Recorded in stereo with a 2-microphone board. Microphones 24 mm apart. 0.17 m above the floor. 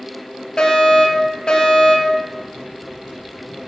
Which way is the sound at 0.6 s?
40° left (ahead or behind).